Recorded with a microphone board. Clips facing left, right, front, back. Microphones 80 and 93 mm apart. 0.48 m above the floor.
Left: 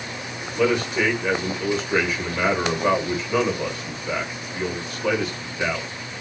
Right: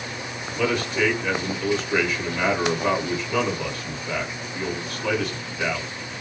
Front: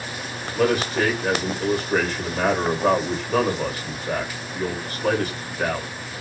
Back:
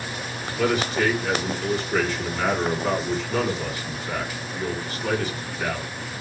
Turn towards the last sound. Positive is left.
turn(degrees=5)